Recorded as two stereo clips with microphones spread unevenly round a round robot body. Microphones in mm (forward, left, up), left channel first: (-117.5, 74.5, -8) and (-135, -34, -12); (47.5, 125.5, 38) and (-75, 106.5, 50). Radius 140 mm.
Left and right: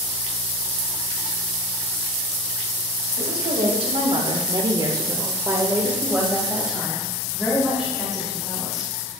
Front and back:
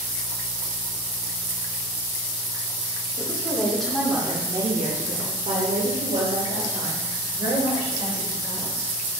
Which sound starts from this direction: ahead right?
A woman speaking, at 3.2 s.